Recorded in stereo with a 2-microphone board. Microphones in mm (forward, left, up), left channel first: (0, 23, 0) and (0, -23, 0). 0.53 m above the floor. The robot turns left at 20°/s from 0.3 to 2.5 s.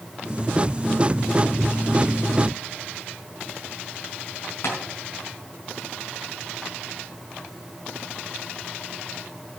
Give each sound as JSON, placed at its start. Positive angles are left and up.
{"t": 4.6, "sound": "tapping", "side_deg": 65, "distance_m": 4.5}